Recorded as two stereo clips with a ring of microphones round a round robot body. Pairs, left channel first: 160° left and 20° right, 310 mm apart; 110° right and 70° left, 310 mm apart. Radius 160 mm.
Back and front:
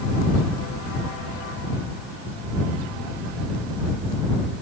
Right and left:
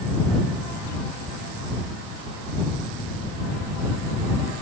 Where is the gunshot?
No gunshot in this recording.